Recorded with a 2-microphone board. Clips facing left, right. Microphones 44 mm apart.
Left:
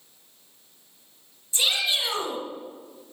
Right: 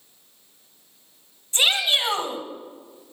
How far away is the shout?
About 2 m.